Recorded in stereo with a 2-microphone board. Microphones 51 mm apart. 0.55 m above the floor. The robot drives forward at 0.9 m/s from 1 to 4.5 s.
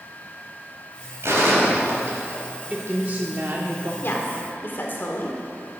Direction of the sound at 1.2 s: 60° right (ahead or behind).